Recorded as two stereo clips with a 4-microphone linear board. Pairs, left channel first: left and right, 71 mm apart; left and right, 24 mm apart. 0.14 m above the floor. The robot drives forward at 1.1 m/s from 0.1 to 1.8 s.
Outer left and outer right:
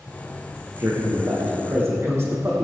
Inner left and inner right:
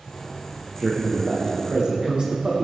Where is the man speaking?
45° right (ahead or behind), 6 m; by 2.6 s 40° right (ahead or behind), 7 m.